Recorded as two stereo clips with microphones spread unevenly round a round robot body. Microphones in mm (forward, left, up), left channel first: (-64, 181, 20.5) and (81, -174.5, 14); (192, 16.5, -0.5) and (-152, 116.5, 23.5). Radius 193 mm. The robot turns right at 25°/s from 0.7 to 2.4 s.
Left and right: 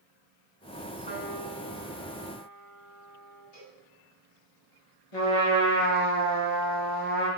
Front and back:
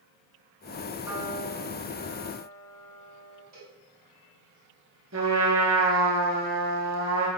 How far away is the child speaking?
No child speaking in this recording.